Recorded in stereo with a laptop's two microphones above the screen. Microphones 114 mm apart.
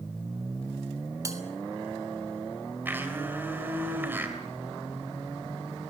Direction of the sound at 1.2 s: 30° right (ahead or behind).